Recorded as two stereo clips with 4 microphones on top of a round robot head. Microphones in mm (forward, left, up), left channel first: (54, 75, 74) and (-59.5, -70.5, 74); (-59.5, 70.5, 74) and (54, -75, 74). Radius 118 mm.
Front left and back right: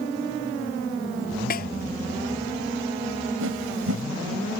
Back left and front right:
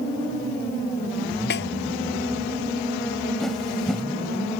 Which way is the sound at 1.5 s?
95° left.